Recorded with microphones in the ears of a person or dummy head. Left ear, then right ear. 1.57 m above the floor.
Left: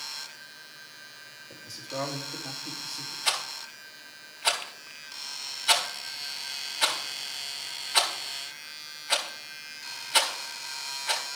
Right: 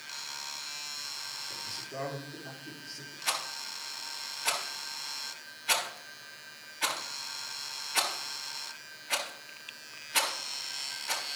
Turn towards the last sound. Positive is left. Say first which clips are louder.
# left 3 dB
turn(degrees=45)  # may be behind; listen again after turning